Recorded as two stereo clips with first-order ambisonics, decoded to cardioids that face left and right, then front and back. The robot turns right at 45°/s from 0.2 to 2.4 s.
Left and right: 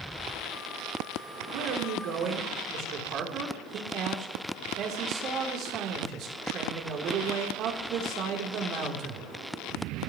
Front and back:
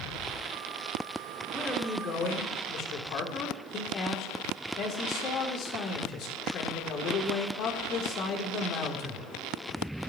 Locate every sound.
1.5 s a man speaking: 85° right, 3.5 m; by 9.2 s 45° right, 3.5 m